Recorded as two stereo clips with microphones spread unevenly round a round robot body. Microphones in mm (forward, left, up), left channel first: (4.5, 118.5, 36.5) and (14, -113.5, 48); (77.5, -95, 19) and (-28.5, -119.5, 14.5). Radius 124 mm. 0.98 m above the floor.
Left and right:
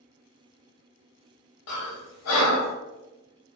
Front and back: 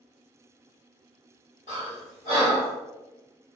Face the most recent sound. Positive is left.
turn(degrees=70)